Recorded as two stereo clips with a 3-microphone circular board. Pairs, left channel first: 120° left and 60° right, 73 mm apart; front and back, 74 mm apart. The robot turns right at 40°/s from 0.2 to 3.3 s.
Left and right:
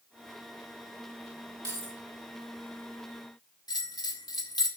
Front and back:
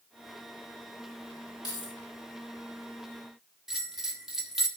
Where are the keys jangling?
20° right, 2.5 m; by 2.0 s 10° right, 2.5 m.